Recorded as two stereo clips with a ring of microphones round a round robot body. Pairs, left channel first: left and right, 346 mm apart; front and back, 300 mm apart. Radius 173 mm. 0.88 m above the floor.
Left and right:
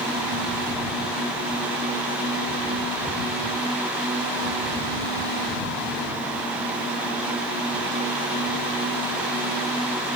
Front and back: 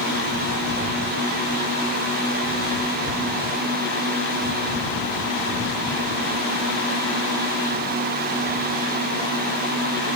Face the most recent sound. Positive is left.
No sound to turn to.